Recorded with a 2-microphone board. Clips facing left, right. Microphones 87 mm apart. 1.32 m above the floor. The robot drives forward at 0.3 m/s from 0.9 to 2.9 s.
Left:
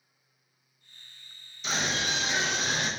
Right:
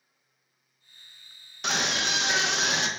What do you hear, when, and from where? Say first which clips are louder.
1.6 s a scream: right 2 dB; 70° right (ahead or behind), 1.1 m; by 2.9 s 85° right, 1.1 m